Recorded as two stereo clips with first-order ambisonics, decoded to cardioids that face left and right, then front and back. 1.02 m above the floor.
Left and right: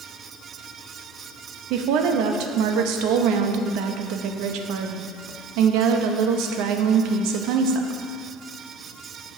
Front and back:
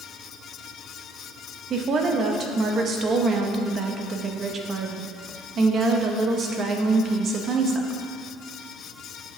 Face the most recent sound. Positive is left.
turn(degrees=-120)